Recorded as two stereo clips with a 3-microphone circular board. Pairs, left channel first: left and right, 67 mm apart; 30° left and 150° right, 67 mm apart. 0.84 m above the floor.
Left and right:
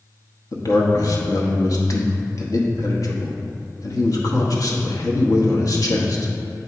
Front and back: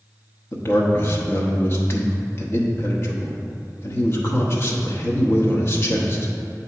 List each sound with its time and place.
0.5 s a man speaking: 70° left, 0.9 m